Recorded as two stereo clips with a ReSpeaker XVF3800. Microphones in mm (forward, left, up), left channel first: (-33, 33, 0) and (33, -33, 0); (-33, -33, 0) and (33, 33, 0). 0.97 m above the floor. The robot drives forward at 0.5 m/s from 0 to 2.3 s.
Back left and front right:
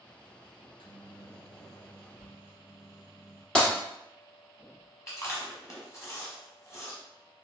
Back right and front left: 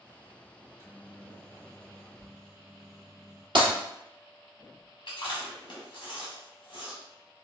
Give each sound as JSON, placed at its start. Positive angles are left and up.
{"t": 0.6, "sound": "a microwave", "azimuth_deg": 105, "distance_m": 0.8}
{"t": 3.5, "sound": "breaking glass", "azimuth_deg": 55, "distance_m": 1.7}
{"t": 5.1, "sound": "chewing", "azimuth_deg": -165, "distance_m": 1.2}